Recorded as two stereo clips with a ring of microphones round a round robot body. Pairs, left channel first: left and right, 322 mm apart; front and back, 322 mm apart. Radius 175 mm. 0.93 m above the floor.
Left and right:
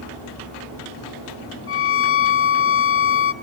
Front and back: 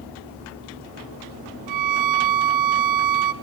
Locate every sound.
1.7 s a violin: 140° left, 1.1 m